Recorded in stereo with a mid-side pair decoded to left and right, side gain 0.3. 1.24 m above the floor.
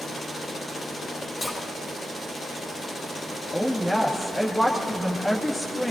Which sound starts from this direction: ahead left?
A splash, at 1.4 s.